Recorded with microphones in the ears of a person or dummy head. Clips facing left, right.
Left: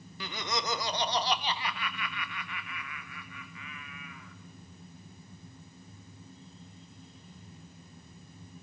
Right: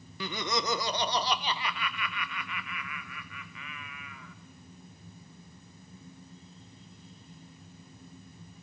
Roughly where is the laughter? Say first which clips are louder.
Right 3 dB; right.